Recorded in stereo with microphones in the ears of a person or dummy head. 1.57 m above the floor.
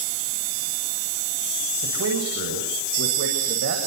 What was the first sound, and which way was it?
A man speaking, 70° right (ahead or behind).